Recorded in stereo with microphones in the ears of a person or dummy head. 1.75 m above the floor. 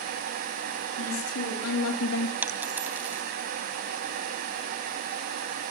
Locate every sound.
1.0 s a woman speaking: 85° left, 4.5 m; by 2.3 s 80° left, 2 m
2.4 s a dropped coin: 10° right (ahead or behind), 3 m